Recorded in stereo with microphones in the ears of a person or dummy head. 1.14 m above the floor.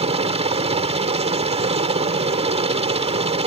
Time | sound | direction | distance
0.0 | a helicopter | 30° right (ahead or behind) | ?